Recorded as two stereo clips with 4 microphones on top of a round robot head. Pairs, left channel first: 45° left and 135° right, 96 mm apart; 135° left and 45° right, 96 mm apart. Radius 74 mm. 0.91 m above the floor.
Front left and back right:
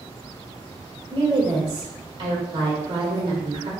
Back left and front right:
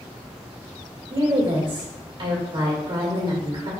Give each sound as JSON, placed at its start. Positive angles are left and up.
{"t": 1.1, "sound": "a woman speaking", "azimuth_deg": -90, "distance_m": 2.0}